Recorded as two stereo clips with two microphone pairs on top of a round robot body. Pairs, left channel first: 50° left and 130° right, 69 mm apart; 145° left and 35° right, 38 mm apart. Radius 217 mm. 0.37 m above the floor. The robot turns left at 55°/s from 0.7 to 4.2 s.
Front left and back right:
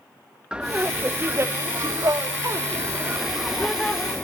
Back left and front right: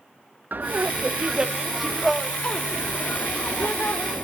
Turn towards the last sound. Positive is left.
turn(degrees=110)